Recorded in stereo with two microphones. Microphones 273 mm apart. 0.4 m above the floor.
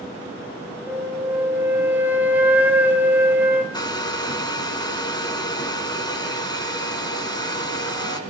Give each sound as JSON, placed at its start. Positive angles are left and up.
{"t": 0.9, "sound": "a flute", "side_deg": -5, "distance_m": 2.5}
{"t": 3.7, "sound": "a hair dryer", "side_deg": 15, "distance_m": 3.0}